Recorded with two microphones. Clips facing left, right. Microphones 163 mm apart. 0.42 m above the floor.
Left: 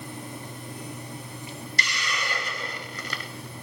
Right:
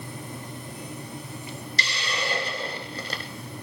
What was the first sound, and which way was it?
A hiss, 30° right (ahead or behind).